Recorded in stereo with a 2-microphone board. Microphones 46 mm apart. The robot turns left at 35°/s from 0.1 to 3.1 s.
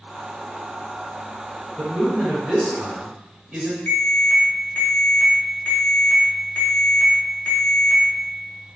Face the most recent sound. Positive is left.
turn(degrees=30)  # may be behind; listen again after turning